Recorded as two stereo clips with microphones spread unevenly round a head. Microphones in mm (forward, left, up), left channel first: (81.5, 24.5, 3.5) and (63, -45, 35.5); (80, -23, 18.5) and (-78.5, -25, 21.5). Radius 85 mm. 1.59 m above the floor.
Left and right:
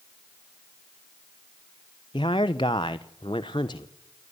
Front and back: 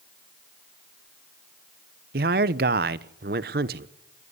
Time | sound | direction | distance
2.1 | a man speaking | 145° left | 0.8 m